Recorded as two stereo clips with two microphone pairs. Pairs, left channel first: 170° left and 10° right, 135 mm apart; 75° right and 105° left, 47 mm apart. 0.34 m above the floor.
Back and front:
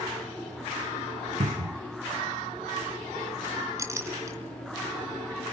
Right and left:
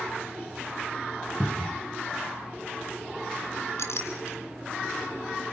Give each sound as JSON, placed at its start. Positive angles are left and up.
{"t": 1.4, "sound": "a cupboard door", "azimuth_deg": 15, "distance_m": 1.1}
{"t": 3.8, "sound": "a clink", "azimuth_deg": -80, "distance_m": 3.5}